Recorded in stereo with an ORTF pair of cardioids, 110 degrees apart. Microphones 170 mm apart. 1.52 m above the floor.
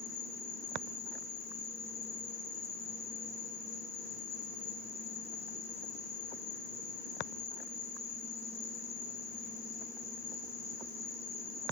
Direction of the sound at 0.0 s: 40° left.